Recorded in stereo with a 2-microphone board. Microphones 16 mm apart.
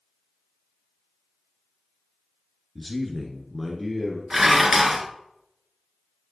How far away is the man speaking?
About 1.3 m.